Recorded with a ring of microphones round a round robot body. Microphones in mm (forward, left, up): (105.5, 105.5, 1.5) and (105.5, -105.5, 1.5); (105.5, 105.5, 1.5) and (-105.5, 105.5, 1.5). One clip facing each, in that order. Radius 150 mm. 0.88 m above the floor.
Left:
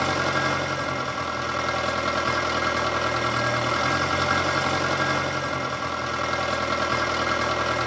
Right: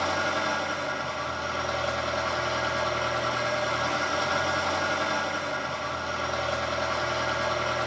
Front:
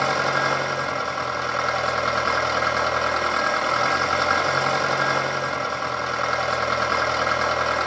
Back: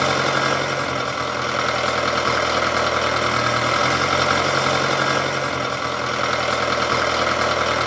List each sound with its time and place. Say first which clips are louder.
0.0 s an engine running: left 4 dB, back 3 dB; 130° left, 1.3 m